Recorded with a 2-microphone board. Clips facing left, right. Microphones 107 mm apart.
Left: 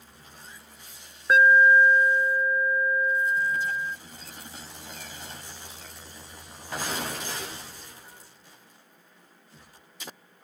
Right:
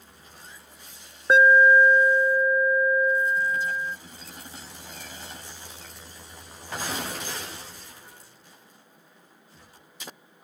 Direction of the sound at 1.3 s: 25° right (ahead or behind).